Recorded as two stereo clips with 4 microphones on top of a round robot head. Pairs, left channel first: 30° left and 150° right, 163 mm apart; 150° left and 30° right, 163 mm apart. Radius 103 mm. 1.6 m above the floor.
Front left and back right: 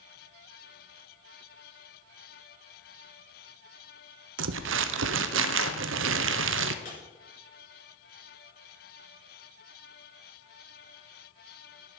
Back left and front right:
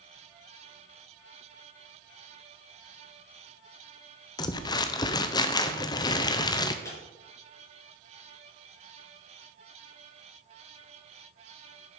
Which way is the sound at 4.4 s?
145° right.